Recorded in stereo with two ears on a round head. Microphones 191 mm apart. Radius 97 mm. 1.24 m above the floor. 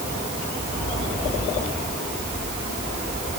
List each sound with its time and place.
Only background noise.